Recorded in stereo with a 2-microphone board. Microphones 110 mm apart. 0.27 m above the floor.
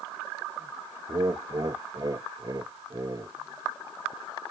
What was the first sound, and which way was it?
Laughter, 40° right (ahead or behind).